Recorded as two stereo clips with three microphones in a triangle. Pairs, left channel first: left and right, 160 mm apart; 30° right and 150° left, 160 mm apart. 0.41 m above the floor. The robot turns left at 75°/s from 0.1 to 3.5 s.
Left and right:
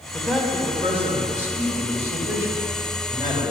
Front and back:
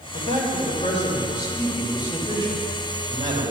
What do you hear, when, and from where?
0.1 s a man speaking: 10° left, 1.9 m; by 3.5 s 120° left, 1.9 m